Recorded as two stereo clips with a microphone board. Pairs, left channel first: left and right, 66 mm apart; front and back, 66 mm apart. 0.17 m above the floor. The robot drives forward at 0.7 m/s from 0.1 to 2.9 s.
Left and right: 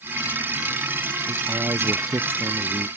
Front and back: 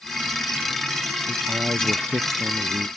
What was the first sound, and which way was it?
A man speaking, 125° right.